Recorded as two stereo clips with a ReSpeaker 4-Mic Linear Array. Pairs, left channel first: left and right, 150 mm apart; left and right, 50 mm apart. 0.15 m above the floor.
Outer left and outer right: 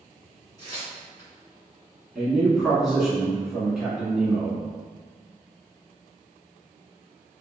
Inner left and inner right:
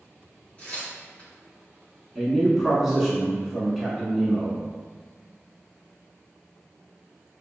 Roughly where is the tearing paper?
Left.